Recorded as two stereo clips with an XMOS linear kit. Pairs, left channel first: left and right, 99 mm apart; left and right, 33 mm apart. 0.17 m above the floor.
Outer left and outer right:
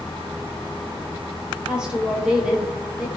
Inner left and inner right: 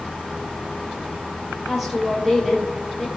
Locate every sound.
1.7 s a woman speaking: 10° right (ahead or behind), 4.5 m; by 3.1 s 5° right (ahead or behind), 4 m